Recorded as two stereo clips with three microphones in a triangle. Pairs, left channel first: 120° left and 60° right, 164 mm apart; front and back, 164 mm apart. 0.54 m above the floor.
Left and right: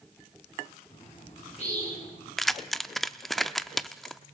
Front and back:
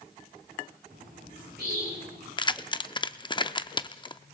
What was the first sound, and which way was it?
A bird, 165° left.